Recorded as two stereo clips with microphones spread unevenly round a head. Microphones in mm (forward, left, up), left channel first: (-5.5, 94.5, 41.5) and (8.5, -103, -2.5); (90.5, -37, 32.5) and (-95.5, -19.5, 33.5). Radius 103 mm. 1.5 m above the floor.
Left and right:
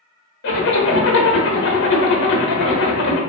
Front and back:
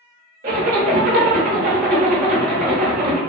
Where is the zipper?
130° left, 0.7 m.